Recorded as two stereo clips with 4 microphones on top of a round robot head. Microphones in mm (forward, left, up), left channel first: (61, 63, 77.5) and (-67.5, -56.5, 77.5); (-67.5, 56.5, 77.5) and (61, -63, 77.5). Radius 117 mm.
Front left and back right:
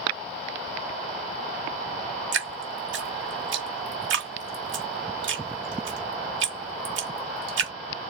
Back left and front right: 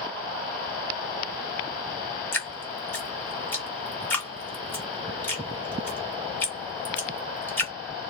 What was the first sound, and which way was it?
Dripping, 145° right.